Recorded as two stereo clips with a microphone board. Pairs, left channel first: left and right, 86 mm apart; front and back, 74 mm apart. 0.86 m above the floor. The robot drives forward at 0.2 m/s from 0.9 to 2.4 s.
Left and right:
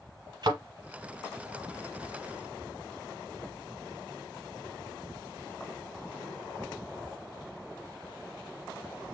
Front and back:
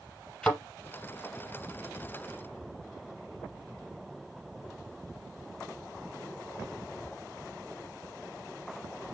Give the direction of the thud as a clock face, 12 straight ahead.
3 o'clock.